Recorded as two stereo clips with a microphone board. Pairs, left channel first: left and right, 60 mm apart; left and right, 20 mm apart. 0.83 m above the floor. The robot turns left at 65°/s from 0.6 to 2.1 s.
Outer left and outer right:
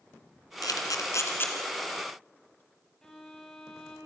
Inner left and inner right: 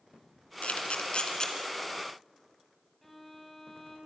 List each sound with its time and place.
0.6 s a camera shutter: 80° left, 3 m; by 1.5 s 30° left (ahead or behind), 3 m
3.0 s a violin: 15° left (ahead or behind), 5.5 m